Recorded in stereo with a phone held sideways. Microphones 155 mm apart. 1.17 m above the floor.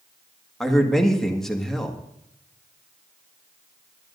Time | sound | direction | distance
0.6 | a man speaking | 5° left (ahead or behind) | 1.8 m